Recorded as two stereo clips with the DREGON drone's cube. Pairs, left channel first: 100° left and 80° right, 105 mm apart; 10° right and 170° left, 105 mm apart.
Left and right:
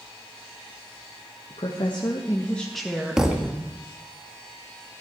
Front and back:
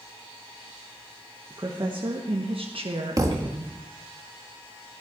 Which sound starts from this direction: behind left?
A woman speaking, at 1.5 s.